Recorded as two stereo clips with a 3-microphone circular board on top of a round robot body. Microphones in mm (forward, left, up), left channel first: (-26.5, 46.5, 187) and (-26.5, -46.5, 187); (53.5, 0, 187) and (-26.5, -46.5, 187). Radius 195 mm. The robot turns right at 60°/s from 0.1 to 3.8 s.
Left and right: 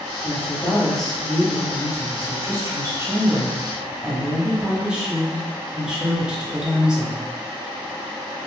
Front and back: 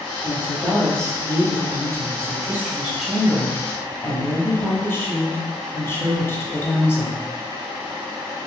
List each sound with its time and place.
0.2 s a woman speaking: 130° left, 1.2 m; by 7.2 s 15° right, 1.2 m